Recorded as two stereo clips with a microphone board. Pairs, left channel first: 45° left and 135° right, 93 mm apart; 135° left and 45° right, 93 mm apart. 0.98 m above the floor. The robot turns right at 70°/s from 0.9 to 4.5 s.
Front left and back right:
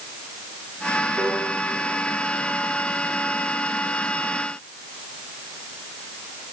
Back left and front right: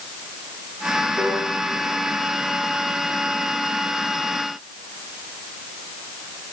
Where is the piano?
85° right, 8 m; by 1.4 s 70° right, 8 m.